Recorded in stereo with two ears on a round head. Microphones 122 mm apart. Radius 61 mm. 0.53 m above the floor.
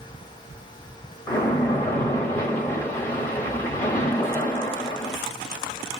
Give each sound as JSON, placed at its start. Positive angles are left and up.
{"t": 1.3, "sound": "a splash", "side_deg": 15, "distance_m": 1.2}